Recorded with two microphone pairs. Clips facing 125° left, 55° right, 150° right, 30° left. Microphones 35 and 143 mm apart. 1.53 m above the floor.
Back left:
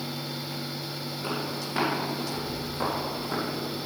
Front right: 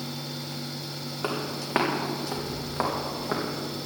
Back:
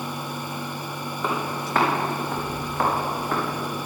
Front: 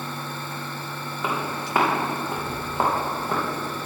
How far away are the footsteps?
About 4 m.